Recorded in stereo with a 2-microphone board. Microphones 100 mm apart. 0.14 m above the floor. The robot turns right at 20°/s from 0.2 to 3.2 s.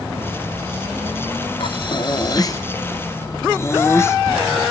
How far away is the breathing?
About 0.6 m.